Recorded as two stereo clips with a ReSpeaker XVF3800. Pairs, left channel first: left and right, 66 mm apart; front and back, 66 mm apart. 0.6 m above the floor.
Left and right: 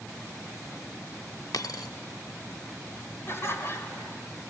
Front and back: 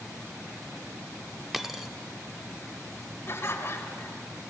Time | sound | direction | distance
1.5 | a dropped coin | 95° left | 0.6 m
3.3 | laughter | 45° left | 2 m